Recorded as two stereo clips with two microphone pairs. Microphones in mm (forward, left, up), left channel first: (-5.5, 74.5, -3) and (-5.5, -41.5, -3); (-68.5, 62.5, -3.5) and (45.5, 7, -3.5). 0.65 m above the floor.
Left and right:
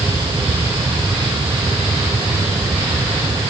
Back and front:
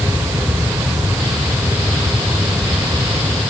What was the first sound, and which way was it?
Only background noise.